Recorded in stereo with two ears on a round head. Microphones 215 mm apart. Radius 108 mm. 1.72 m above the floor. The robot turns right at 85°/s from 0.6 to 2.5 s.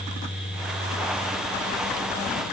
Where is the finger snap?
No finger snap in this recording.